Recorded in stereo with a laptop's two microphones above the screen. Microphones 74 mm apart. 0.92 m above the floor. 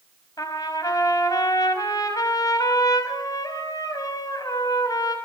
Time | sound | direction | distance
0.4 | a trumpet | 55° left (ahead or behind) | 5.5 m